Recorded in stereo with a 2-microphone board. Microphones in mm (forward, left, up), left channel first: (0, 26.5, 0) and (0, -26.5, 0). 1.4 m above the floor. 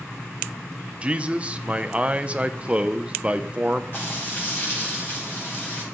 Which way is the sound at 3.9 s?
40° left (ahead or behind).